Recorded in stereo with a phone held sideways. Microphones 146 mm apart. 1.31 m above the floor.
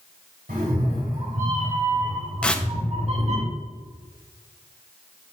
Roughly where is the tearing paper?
Centre.